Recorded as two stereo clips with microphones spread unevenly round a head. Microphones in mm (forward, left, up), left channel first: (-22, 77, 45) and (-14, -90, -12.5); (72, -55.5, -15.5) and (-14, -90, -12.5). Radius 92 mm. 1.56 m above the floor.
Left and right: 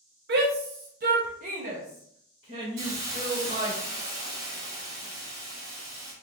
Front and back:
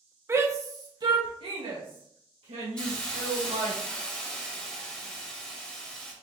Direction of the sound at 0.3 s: 95° right.